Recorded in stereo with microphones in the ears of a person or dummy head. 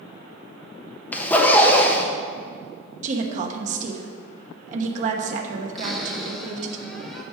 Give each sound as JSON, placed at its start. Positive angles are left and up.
{"t": 1.1, "sound": "a zipper", "side_deg": 10, "distance_m": 1.1}
{"t": 3.0, "sound": "a woman speaking", "side_deg": -45, "distance_m": 1.1}
{"t": 5.8, "sound": "a cupboard door", "side_deg": 0, "distance_m": 1.8}